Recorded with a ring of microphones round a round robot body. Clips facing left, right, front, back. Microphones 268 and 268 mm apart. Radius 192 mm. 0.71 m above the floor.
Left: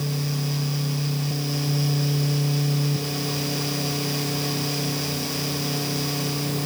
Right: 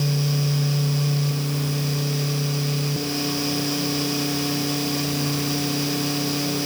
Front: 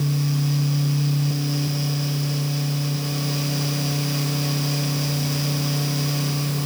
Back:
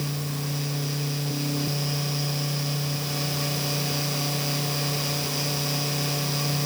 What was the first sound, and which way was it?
Only background noise.